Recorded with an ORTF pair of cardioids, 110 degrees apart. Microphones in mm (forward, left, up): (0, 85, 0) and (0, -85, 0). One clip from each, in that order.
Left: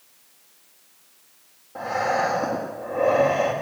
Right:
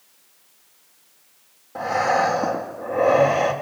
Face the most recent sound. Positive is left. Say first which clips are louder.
# right 3 dB
turn(degrees=-30)